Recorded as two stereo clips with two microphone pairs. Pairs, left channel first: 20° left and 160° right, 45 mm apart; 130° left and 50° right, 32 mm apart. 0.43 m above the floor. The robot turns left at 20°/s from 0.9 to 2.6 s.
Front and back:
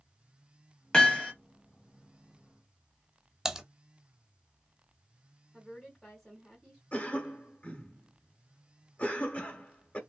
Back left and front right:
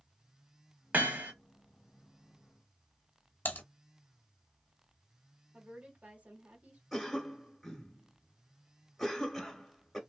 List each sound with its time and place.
0.9 s hammering: 50° right, 1.1 m; by 1.3 s 60° right, 1.1 m
3.5 s typing on a keyboard: 125° left, 0.6 m
5.5 s a woman speaking: 75° right, 1.9 m
6.9 s a cough: 45° left, 1.0 m